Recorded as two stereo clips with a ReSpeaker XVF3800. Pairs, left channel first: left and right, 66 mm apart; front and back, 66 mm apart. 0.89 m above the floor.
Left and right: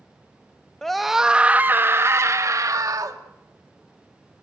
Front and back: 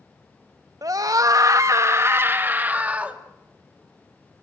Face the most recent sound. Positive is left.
turn(degrees=-110)